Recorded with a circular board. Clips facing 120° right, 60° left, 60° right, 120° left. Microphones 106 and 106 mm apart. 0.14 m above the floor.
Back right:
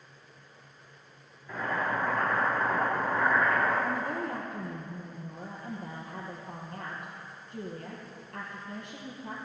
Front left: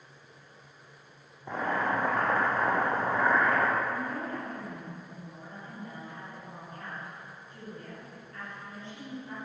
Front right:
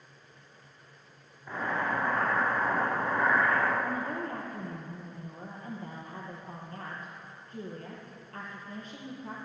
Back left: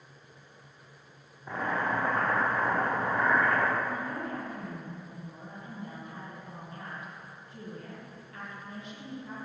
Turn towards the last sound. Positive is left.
turn(degrees=-95)